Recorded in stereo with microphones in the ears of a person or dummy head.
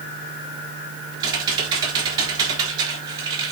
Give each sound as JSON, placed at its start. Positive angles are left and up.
{"t": 1.2, "sound": "typing on a keyboard", "side_deg": -30, "distance_m": 3.0}